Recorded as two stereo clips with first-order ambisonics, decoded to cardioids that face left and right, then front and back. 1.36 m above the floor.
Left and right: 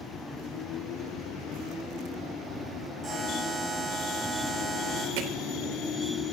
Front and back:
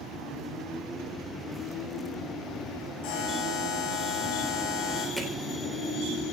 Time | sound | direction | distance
3.0 | a buzzer | 10° right | 9.5 m
5.2 | hammering | 90° right | 3.5 m